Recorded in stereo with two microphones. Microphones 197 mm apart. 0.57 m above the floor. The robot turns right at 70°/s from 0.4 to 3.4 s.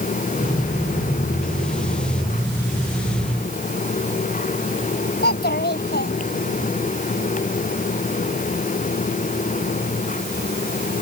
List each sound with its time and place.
5.2 s a child speaking: 55° left (ahead or behind)